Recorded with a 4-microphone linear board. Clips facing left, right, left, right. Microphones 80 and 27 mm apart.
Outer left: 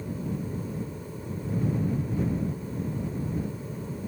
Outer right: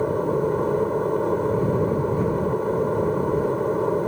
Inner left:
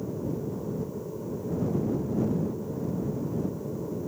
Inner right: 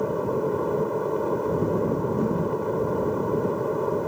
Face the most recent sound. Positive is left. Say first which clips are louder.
# outer right 12 dB, inner right 8 dB
turn(degrees=-65)  # may be behind; listen again after turning